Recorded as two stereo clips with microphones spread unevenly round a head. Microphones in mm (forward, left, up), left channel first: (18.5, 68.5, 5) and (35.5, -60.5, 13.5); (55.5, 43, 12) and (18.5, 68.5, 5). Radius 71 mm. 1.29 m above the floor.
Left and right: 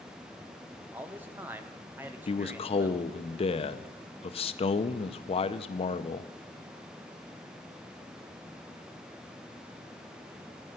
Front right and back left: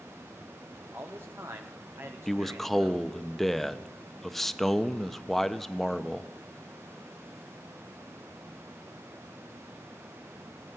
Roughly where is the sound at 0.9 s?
Behind.